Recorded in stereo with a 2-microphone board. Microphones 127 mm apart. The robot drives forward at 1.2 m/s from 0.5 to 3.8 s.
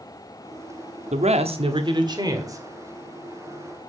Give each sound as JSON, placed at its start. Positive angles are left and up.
{"t": 1.1, "sound": "a man speaking", "side_deg": -65, "distance_m": 1.2}